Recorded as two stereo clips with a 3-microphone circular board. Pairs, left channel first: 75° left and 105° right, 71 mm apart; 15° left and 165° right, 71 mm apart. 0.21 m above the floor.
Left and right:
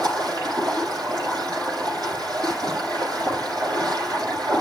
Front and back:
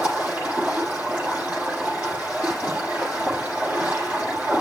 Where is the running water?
100° right, 7.5 m.